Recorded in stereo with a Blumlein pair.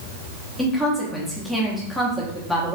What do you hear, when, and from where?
0.6 s a woman speaking: 5° left, 0.9 m